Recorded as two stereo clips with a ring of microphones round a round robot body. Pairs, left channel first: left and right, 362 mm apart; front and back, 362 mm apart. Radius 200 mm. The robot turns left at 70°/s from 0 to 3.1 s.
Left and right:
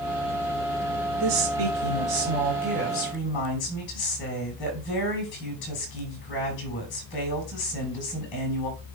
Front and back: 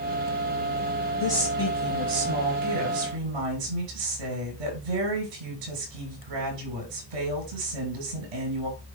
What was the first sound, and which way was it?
A woman speaking, 75° right.